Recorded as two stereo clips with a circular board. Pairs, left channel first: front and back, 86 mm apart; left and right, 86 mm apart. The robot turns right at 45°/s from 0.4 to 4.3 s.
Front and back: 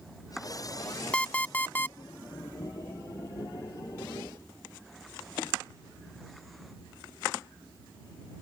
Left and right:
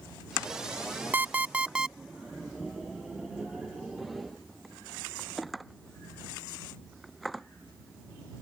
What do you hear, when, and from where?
1.1 s an alarm clock: 55° right; by 2.0 s 20° right